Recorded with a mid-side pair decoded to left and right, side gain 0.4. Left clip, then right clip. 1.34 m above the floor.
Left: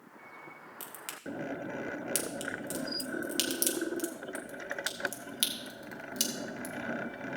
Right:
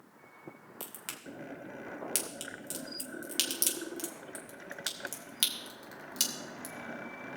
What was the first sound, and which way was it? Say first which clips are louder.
A crack: left 1 dB; 5° right.